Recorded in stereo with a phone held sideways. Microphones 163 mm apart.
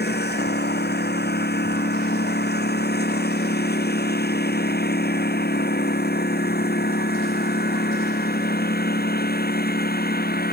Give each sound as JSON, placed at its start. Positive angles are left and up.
{"t": 0.0, "sound": "a lawn mower", "side_deg": 85}